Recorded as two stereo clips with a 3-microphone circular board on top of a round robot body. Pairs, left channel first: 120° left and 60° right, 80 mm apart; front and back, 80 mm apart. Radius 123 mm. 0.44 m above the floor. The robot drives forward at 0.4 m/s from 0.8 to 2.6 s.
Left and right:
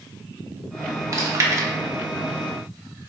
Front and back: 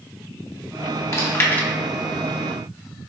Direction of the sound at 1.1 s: 35° right.